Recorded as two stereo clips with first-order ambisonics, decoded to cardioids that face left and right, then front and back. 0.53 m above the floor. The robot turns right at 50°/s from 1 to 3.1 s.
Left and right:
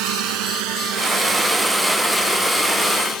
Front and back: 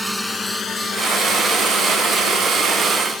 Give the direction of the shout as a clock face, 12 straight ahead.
I don't hear a shout.